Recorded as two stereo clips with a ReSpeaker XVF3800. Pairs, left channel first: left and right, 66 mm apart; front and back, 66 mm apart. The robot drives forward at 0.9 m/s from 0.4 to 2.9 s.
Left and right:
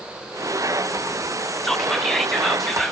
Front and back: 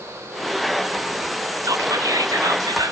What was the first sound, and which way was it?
Whispering, 175° left.